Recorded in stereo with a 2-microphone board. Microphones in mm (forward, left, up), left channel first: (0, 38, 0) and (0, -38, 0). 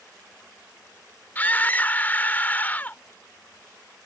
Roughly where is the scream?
Left.